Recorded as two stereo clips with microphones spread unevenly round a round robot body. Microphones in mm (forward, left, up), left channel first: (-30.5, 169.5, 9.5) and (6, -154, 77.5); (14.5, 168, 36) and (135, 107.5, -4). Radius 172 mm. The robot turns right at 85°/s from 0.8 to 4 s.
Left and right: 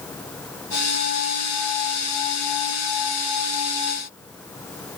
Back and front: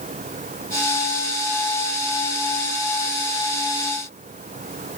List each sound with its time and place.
Only background noise.